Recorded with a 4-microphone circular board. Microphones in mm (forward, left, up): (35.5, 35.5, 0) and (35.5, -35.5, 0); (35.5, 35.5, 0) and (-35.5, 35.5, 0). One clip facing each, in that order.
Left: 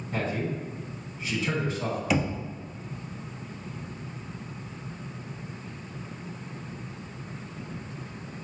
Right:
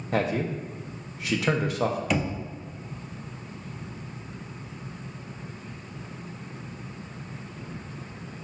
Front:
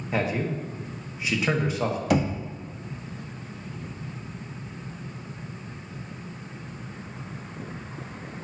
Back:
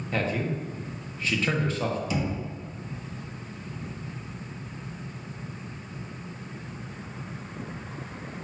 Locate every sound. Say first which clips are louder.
0.1 s a man speaking: right 4 dB, front 2 dB; 75° right, 1.0 m
2.1 s knocking: left 1 dB, front 6 dB; 5° left, 0.6 m